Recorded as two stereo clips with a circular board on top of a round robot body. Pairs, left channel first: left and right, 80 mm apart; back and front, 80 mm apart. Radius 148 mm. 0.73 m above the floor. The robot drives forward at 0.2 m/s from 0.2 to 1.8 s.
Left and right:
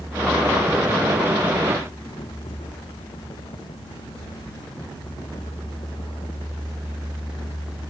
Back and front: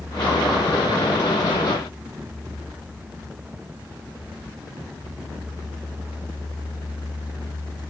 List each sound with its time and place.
Only background noise.